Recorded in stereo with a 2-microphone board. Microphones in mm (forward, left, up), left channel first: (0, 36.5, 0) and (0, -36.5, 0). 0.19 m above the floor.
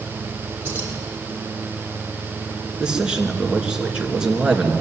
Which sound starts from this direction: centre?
A man speaking, at 2.8 s.